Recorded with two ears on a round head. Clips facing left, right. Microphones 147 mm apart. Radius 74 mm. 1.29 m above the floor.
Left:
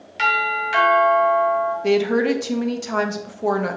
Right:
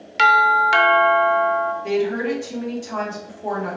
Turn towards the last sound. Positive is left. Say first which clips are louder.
# left 6 dB
turn(degrees=70)  # may be behind; listen again after turning